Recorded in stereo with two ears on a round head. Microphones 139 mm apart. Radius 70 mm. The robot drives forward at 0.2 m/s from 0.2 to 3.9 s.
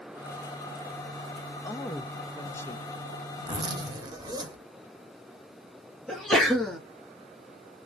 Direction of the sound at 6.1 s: Centre (ahead or behind).